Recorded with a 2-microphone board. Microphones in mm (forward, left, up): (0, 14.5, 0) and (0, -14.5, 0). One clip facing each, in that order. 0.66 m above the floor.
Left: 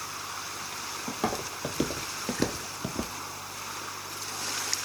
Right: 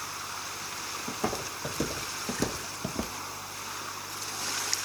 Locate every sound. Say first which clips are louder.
1.1 s footsteps: left 2 dB; 40° left (ahead or behind), 1.6 m; by 3.1 s 5° right (ahead or behind), 0.6 m